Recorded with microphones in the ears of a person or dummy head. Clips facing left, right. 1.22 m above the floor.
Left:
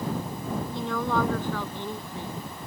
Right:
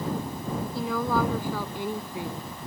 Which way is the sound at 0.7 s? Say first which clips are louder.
Right 1 dB; 5° right (ahead or behind).